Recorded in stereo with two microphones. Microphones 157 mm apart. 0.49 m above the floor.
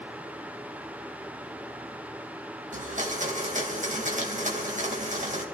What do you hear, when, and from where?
2.7 s a blender: 55° right (ahead or behind), 3 m